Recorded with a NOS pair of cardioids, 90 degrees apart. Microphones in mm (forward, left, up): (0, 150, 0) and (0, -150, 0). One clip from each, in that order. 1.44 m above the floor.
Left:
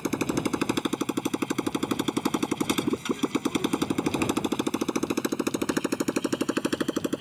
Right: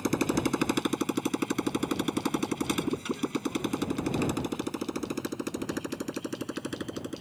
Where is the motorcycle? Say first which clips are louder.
Even; 5° left; by 7.2 s 65° left.